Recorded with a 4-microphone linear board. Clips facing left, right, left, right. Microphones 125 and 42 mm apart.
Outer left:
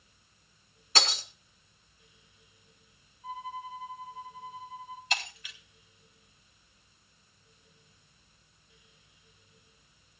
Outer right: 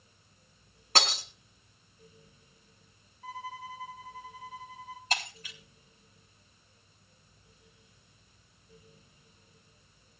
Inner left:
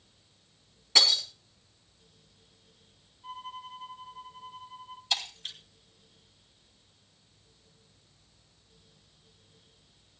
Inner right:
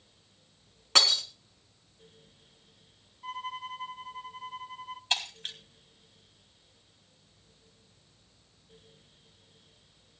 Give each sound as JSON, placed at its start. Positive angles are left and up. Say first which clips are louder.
{"t": 0.9, "sound": "breaking glass", "louder": "outer right 2 dB, even", "side_deg": -55, "distance_m": 3.5}
{"t": 3.2, "sound": "a violin", "louder": "outer left 2 dB, inner right 4 dB", "side_deg": -80, "distance_m": 0.8}
{"t": 5.1, "sound": "breaking glass", "louder": "outer right 2 dB, inner right 1 dB", "side_deg": -40, "distance_m": 3.5}